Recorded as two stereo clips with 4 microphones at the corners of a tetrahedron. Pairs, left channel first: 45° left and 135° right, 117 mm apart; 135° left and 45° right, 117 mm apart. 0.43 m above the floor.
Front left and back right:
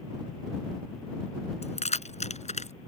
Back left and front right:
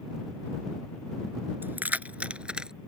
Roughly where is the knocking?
No knocking in this recording.